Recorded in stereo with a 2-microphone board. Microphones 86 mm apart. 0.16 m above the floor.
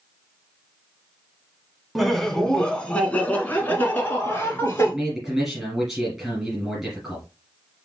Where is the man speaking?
5° right (ahead or behind), 3 m.